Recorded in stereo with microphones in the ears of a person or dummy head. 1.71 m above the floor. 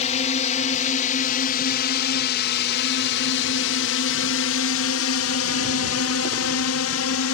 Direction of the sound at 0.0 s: 35° left (ahead or behind).